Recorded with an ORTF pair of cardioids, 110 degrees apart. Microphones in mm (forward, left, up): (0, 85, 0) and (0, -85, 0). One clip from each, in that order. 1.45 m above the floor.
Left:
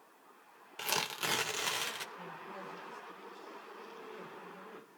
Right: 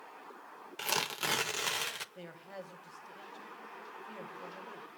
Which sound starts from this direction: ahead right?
A man speaking, at 2.1 s.